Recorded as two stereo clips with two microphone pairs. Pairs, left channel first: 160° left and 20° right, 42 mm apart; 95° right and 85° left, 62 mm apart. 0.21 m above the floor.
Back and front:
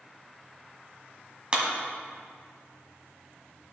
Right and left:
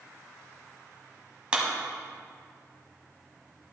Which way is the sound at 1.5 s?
25° left.